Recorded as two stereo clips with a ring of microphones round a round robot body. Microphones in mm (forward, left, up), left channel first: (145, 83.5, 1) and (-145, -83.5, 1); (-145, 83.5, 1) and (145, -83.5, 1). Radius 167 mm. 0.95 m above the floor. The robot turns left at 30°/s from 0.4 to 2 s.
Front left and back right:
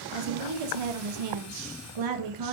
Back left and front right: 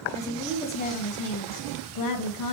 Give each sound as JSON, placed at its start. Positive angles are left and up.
{"t": 0.1, "sound": "a woman speaking", "azimuth_deg": -130, "distance_m": 1.0}